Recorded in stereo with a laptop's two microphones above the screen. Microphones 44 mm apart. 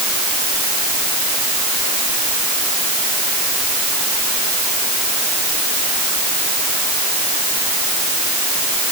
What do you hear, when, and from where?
Only background noise.